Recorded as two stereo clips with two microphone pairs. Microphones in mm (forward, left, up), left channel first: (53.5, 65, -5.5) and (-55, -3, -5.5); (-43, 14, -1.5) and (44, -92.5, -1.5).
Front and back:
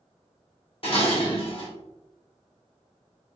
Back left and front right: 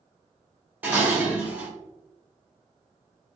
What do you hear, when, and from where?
0.8 s dishes clattering: 20° left, 1.1 m